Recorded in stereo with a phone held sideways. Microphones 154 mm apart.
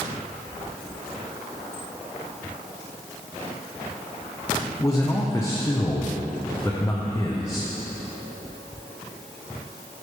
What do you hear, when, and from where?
4.8 s a man speaking: 20° left (ahead or behind), 0.6 m